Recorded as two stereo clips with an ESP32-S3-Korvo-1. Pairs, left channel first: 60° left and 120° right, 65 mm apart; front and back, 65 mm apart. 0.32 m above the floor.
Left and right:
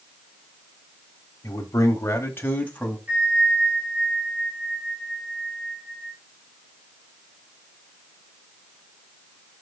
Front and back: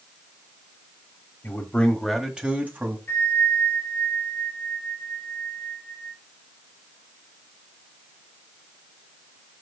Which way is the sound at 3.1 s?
55° right.